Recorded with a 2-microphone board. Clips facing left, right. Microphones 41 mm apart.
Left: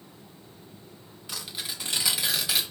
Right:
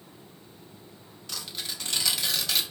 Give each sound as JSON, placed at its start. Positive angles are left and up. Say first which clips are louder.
{"t": 1.3, "sound": "tearing paper", "louder": "even", "side_deg": 10, "distance_m": 0.8}